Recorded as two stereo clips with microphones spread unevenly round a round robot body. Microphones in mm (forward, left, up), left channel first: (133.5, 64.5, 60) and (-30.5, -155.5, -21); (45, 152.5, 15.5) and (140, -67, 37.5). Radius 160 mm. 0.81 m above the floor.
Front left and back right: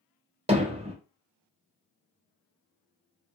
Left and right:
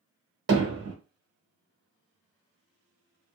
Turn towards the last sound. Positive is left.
turn(degrees=-55)